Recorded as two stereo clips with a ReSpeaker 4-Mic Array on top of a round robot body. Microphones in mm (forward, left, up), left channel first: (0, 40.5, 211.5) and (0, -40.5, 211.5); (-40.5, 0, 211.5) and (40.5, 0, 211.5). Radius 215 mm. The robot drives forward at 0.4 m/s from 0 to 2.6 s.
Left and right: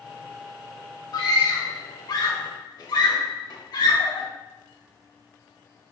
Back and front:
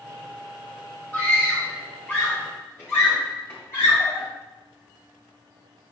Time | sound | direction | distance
1.1 | a scream | 105° left | 1.9 m